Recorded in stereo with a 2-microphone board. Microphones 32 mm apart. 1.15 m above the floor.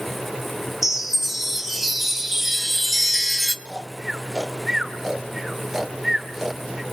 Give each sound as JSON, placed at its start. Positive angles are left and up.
{"t": 0.8, "sound": "a chime", "side_deg": -5, "distance_m": 0.8}
{"t": 3.6, "sound": "snoring", "side_deg": -15, "distance_m": 1.9}